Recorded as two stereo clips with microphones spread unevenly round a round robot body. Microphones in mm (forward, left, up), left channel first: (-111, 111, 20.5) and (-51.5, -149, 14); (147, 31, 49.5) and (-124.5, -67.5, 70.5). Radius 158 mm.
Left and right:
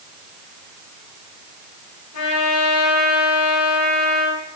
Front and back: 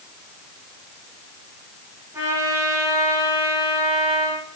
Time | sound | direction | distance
2.1 | a trumpet | 120° left | 8.5 m